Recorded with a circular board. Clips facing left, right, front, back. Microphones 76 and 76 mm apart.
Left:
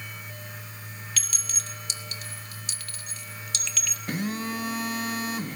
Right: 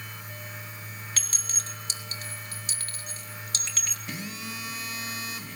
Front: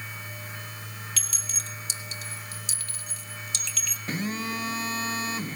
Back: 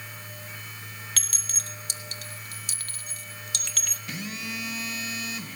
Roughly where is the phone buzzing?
Ahead left.